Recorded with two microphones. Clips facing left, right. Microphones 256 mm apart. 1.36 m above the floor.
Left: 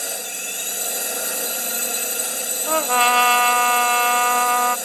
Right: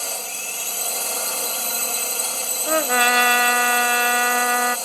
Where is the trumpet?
15° right (ahead or behind).